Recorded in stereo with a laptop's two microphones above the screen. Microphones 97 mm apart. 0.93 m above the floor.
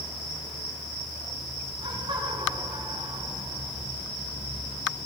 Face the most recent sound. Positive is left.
turn(degrees=-75)  # may be behind; listen again after turning